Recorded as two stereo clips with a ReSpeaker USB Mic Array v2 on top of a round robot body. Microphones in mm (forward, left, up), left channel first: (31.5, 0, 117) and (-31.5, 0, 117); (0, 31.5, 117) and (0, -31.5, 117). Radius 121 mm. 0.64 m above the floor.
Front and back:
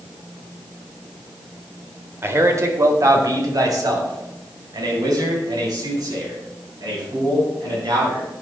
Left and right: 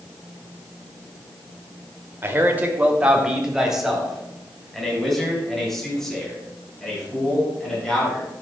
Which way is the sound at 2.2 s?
135° right.